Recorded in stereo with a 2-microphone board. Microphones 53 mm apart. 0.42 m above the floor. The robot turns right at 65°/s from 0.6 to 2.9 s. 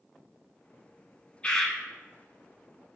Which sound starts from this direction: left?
A bird, at 1.4 s.